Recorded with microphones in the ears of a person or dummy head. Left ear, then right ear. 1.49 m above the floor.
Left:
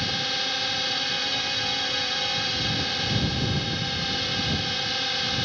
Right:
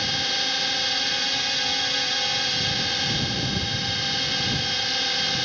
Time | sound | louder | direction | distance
0.0 | a drone | right 2 dB | 10° right (ahead or behind) | ?